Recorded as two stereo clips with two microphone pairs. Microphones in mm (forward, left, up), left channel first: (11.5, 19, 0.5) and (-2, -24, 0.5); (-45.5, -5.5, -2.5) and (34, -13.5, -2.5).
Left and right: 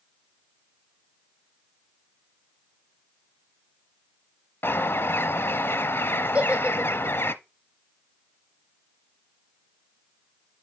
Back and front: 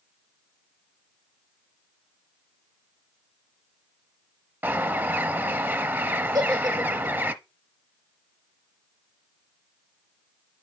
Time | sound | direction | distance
4.6 | a bird | 55° left | 0.7 m
6.3 | a giggle | 45° right | 5 m